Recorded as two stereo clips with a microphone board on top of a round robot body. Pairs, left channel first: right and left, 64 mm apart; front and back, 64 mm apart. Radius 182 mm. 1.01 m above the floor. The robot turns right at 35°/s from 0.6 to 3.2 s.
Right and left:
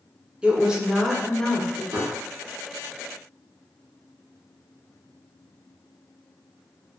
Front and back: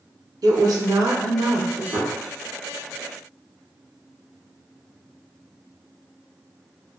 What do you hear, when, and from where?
0.4 s a woman speaking: 165° left, 0.7 m; by 1.8 s 155° right, 0.7 m
1.9 s a gunshot: 145° left, 1.4 m; by 2.1 s 150° left, 1.4 m